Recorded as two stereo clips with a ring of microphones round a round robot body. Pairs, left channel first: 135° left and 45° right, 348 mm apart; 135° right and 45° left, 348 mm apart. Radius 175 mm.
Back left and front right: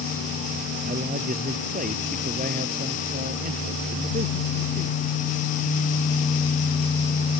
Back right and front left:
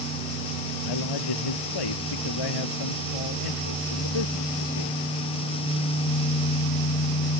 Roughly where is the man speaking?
Behind right.